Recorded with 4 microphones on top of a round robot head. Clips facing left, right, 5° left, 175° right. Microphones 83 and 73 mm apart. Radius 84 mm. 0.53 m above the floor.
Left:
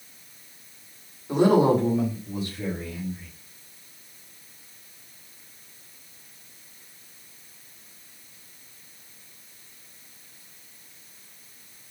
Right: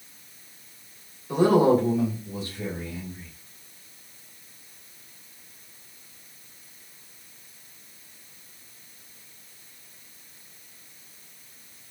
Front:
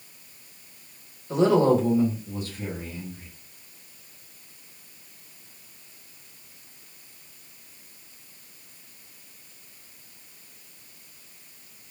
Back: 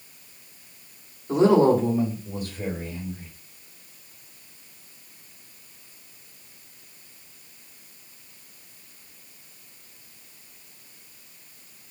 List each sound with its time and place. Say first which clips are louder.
1.3 s a woman speaking: even, back 2 dB; 150° left, 2.5 m; by 3.3 s 170° left, 3 m